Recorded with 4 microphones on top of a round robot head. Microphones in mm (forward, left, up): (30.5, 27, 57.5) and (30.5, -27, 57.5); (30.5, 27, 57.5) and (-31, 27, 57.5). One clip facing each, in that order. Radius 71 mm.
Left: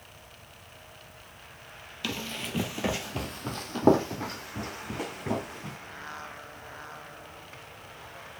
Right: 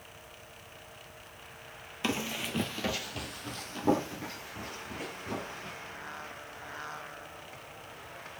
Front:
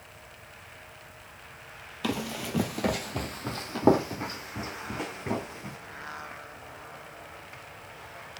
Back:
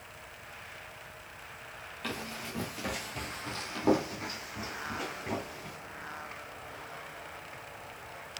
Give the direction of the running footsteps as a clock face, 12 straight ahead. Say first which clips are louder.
Right 2 dB, front 7 dB; 1 o'clock.